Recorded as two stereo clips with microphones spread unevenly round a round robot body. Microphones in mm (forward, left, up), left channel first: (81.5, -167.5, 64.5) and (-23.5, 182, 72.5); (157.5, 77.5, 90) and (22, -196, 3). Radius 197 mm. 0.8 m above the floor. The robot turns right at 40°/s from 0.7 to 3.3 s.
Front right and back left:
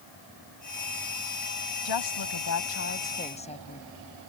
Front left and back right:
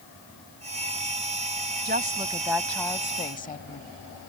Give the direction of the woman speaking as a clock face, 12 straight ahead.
2 o'clock.